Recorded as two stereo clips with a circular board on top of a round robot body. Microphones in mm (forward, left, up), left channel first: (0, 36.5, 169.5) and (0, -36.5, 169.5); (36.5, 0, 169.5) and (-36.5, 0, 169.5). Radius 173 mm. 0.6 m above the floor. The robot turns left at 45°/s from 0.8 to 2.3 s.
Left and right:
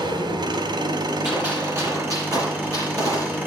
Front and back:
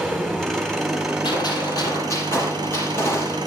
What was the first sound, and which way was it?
An engine running, 85° right.